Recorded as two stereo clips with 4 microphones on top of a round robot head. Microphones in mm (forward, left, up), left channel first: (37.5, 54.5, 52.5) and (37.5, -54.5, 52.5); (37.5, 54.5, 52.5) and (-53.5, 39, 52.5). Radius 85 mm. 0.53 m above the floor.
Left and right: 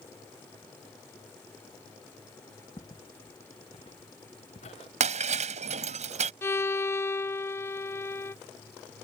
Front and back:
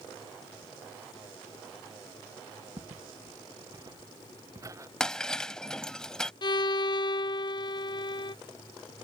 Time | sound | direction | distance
2.8 | footsteps | 150° left | ?
5.0 | breaking glass | 75° right | ?
6.4 | a violin | 25° left | ?